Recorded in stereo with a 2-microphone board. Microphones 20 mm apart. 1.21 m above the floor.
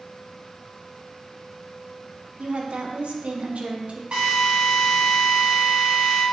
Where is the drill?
70° right (ahead or behind), 2 m.